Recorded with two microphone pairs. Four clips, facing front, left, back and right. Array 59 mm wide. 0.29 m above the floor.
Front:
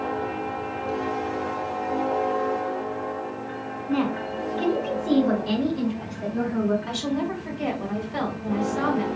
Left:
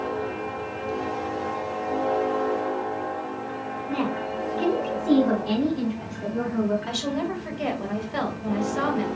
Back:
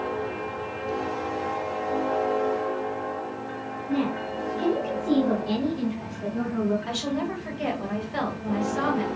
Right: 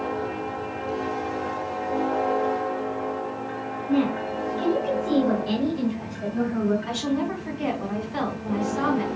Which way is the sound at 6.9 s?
115° left.